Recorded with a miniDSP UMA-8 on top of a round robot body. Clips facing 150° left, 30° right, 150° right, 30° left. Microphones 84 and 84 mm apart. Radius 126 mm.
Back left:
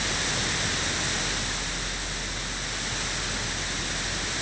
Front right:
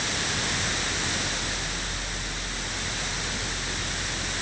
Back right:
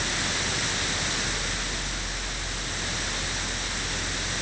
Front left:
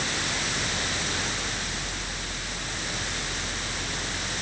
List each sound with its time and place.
Only background noise.